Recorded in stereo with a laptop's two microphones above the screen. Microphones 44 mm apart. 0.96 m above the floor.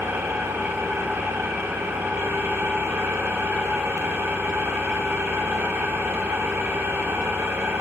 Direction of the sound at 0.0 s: 80° right.